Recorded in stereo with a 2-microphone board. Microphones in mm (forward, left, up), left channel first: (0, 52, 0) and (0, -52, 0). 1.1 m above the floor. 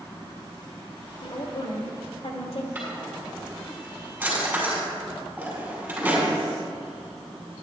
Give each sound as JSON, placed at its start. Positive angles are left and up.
{"t": 1.2, "sound": "a woman speaking", "side_deg": 75, "distance_m": 2.5}
{"t": 2.8, "sound": "a drawer", "side_deg": -15, "distance_m": 5.0}